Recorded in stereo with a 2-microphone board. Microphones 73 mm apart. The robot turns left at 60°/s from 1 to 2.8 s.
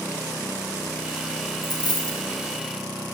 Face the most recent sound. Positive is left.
turn(degrees=50)